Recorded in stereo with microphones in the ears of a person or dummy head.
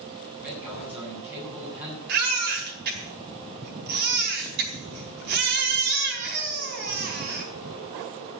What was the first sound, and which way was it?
A man speaking, 5° right (ahead or behind).